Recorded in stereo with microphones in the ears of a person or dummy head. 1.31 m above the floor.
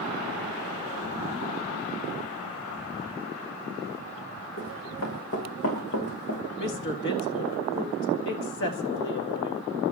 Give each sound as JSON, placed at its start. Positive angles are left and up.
{"t": 4.6, "sound": "running footsteps", "side_deg": 70, "distance_m": 5.5}
{"t": 6.6, "sound": "a woman speaking", "side_deg": 60, "distance_m": 2.0}